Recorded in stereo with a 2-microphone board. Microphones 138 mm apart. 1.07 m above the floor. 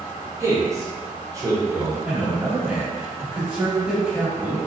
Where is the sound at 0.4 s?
25° right (ahead or behind), 0.6 m.